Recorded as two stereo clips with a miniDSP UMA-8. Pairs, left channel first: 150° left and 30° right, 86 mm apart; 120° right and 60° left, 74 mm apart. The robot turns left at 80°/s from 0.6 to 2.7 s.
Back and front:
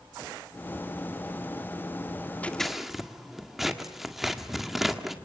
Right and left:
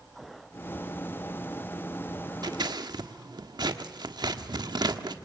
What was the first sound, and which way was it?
Scissors, 80° left.